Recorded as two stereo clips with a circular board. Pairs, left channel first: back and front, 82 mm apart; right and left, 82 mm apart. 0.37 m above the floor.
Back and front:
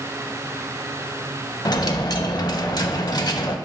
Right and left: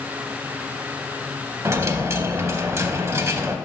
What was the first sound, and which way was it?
A dropped coin, 145° left.